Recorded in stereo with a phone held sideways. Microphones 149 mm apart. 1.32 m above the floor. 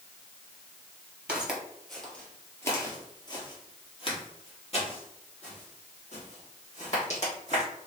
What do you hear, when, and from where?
1.3 s footsteps: 10° right (ahead or behind), 1.5 m; by 7.6 s 60° left (ahead or behind), 3.5 m